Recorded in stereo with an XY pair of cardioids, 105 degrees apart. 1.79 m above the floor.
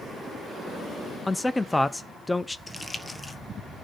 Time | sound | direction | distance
1.3 | a man speaking | 10° left | 0.6 m
2.7 | crumpling | 15° left | 1.4 m